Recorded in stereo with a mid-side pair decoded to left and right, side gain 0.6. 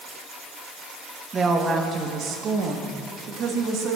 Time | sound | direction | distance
1.3 | a woman speaking | 30° right | 2.0 m